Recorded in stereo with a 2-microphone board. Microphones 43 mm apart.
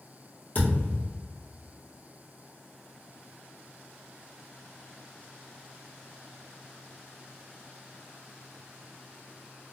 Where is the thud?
35° left (ahead or behind), 1.9 m.